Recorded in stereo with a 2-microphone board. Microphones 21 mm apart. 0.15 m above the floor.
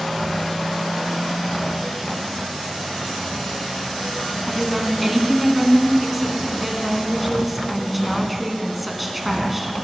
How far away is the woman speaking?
About 1.3 m.